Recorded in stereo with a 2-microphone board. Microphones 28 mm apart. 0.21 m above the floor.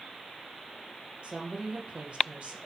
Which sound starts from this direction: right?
A woman speaking, at 1.2 s.